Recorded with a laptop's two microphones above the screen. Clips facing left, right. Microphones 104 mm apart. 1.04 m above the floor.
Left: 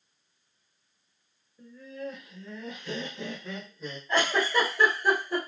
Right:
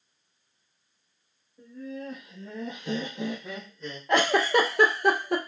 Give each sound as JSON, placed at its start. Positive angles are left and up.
{"t": 1.6, "sound": "laughter", "side_deg": -75, "distance_m": 2.0}
{"t": 4.1, "sound": "a giggle", "side_deg": -70, "distance_m": 0.7}